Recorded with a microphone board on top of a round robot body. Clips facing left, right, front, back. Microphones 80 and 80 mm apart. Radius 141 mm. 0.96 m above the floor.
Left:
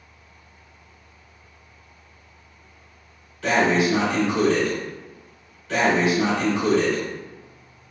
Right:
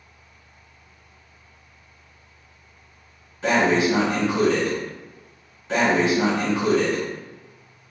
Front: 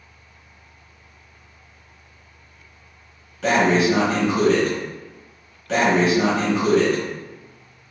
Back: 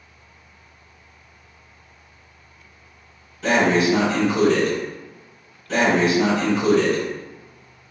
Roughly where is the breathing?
Ahead.